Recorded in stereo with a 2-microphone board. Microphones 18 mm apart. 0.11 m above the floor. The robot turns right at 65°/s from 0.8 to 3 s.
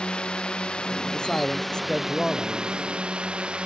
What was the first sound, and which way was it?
A drone, 65° left (ahead or behind).